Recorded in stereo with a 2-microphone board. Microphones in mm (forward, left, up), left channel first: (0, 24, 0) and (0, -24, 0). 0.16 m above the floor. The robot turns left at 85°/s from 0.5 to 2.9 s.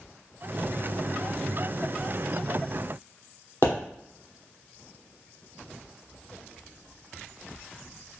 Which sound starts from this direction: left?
A pop, at 3.6 s.